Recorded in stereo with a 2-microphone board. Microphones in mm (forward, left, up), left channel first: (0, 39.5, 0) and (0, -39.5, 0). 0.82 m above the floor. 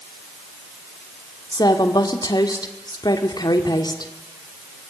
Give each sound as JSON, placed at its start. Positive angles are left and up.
{"t": 1.5, "sound": "a woman speaking", "side_deg": 60, "distance_m": 1.9}